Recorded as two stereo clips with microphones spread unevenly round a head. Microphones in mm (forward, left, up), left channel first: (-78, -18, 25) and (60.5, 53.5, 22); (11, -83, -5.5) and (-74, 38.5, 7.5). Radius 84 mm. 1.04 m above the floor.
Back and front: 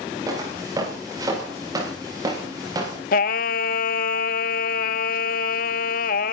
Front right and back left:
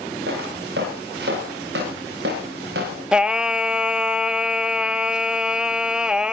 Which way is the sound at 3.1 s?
155° right.